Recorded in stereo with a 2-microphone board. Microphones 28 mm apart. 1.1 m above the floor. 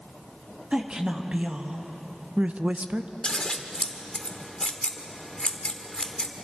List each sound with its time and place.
0.7 s a woman speaking: 35° right (ahead or behind), 2 m; by 3.1 s 55° right (ahead or behind), 0.7 m
3.2 s scissors: 35° left (ahead or behind), 1.2 m